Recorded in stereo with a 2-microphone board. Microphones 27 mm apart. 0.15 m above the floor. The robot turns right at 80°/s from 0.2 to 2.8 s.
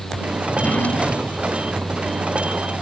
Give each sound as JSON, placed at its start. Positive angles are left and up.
{"t": 0.5, "sound": "a drawer", "azimuth_deg": 95}